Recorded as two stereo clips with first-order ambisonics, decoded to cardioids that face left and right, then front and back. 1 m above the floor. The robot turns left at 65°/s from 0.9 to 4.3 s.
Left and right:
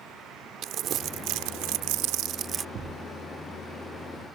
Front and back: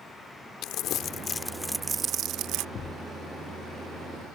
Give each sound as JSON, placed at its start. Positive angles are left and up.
{"t": 0.6, "sound": "crumpling", "azimuth_deg": -40}
{"t": 2.8, "sound": "a thud", "azimuth_deg": -45}